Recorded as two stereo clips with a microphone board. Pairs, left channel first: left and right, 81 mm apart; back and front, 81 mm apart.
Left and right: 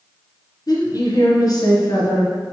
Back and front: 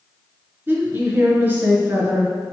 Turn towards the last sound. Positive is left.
turn(degrees=60)